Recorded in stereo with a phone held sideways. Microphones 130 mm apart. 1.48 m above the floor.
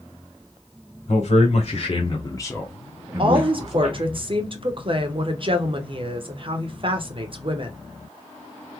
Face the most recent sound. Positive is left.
turn(degrees=-40)  # may be behind; listen again after turning